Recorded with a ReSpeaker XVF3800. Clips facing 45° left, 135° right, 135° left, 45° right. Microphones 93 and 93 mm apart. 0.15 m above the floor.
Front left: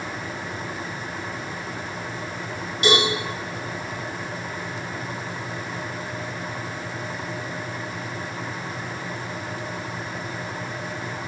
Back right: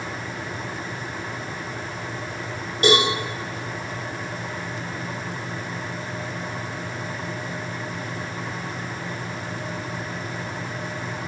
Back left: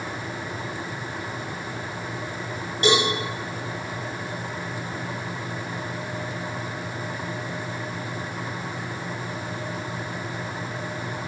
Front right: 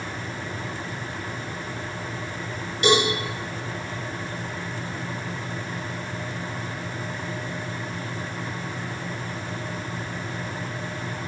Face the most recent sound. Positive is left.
turn(degrees=-175)